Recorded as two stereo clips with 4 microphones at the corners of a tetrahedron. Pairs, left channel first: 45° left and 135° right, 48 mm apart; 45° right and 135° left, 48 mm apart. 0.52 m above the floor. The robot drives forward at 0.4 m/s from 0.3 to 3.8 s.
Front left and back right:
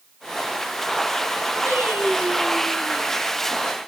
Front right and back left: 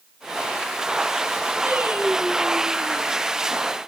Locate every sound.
1.7 s singing: 175° right, 2.5 m